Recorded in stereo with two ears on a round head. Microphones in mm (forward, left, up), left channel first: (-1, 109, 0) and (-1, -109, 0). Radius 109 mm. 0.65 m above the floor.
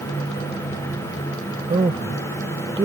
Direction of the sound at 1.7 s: 20° right (ahead or behind).